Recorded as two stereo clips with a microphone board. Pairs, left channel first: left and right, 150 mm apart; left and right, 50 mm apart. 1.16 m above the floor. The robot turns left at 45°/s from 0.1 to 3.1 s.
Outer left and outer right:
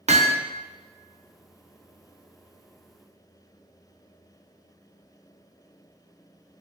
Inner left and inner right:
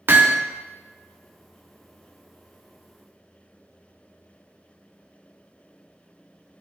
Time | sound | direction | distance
0.1 | hammering | 45° right (ahead or behind) | 0.9 m